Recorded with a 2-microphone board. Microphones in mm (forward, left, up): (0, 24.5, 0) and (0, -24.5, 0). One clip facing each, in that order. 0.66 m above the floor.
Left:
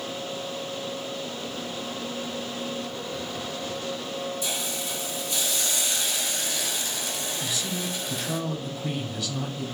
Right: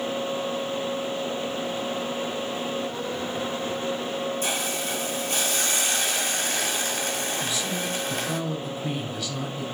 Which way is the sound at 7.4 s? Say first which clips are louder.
Right 2 dB; 5° left (ahead or behind).